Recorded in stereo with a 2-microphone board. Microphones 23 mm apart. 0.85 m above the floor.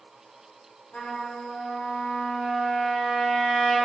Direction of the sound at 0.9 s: 60° left (ahead or behind).